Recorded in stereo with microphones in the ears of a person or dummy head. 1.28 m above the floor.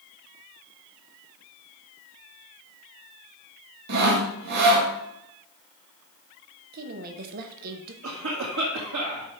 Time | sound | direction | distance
3.9 | sawing | 55° right (ahead or behind) | 1.7 m
6.7 | a woman speaking | 55° right (ahead or behind) | 1.1 m
8.0 | a cough | 75° right (ahead or behind) | 2 m